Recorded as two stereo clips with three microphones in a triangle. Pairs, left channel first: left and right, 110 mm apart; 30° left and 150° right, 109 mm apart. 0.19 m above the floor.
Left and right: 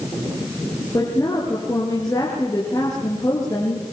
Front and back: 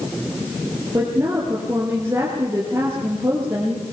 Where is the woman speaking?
145° left, 4.5 m.